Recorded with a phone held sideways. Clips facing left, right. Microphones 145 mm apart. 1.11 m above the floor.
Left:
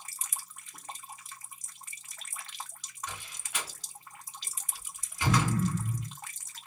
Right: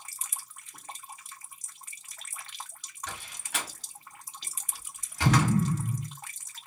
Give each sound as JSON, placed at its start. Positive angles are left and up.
{"t": 3.1, "sound": "a door slam", "side_deg": -80, "distance_m": 1.3}
{"t": 5.2, "sound": "an explosion", "side_deg": -30, "distance_m": 0.6}